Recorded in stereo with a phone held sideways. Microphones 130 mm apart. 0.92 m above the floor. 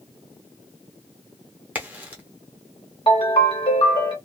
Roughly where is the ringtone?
Left.